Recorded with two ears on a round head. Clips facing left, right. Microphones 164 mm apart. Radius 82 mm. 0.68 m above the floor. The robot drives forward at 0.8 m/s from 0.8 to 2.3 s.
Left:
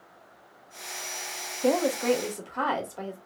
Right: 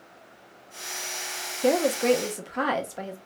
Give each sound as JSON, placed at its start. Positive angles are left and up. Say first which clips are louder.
{"t": 1.6, "sound": "a woman speaking", "louder": "right 2 dB", "side_deg": -25, "distance_m": 0.5}